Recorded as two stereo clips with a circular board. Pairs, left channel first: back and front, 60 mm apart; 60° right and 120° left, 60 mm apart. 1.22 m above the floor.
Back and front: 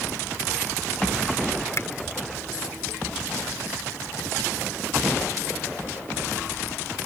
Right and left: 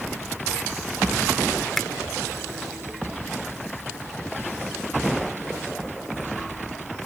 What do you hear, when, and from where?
1.8 s a finger snap: 145° right